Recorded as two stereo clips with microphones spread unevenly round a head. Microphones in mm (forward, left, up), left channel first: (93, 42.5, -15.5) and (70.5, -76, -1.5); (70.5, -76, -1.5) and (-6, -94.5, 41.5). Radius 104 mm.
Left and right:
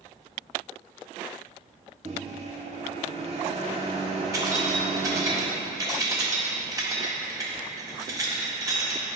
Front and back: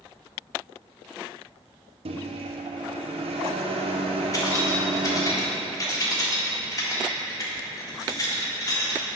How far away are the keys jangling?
About 1.8 m.